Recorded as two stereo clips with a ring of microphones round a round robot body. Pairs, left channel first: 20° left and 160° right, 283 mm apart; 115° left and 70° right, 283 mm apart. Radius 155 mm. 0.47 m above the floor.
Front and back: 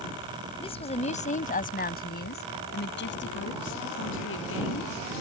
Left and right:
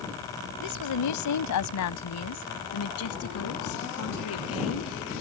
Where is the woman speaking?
95° left; by 5.1 s 70° left.